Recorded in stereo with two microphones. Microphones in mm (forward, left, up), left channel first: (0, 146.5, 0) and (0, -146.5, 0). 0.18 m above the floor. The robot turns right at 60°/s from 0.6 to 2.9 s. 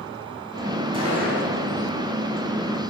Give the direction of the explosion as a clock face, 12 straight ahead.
5 o'clock.